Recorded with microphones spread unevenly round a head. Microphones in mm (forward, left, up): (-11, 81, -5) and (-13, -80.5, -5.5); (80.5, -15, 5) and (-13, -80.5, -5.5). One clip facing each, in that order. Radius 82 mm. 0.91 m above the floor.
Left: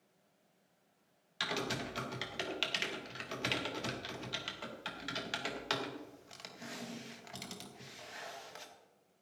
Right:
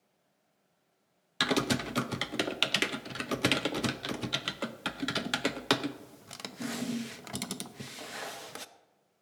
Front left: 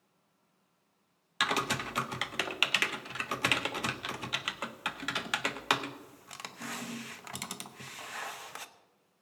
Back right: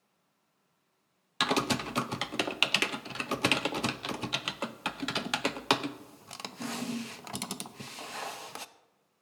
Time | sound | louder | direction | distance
1.4 | typing on a keyboard | right 9 dB, back right 3 dB | 90° right | 0.7 m